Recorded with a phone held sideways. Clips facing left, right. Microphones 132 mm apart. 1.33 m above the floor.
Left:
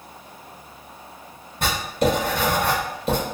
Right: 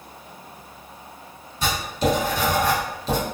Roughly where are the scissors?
No scissors in this recording.